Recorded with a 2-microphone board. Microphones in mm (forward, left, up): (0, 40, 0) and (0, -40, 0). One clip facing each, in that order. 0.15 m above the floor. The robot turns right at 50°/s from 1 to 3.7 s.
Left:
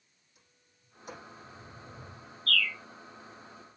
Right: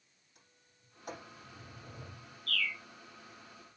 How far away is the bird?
About 0.7 m.